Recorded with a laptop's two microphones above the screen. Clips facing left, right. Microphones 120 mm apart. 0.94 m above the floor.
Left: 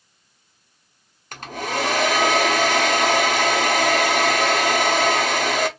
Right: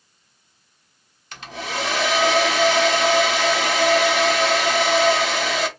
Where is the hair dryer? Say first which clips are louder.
Left 3 dB; 45° left (ahead or behind), 1.0 m.